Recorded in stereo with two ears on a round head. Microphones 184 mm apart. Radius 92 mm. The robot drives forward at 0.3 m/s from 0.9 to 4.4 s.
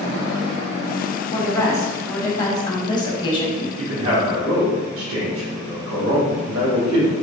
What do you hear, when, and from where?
1.3 s a woman speaking: 15° left (ahead or behind), 1.5 m; by 3.7 s 25° left (ahead or behind), 0.9 m
3.8 s a man speaking: 70° right (ahead or behind), 2.0 m; by 7.1 s 75° right (ahead or behind), 1.9 m